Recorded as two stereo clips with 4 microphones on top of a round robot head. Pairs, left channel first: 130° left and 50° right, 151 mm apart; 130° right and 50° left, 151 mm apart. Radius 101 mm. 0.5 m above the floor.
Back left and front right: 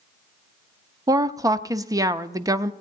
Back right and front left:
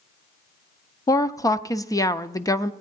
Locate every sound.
1.1 s a woman speaking: 90° right, 0.7 m